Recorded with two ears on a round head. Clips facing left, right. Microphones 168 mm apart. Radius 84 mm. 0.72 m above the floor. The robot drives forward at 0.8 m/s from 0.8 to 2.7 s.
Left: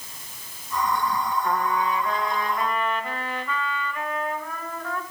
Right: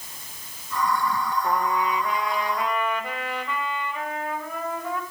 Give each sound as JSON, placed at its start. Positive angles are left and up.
{"t": 1.4, "sound": "a trumpet", "side_deg": -20, "distance_m": 1.8}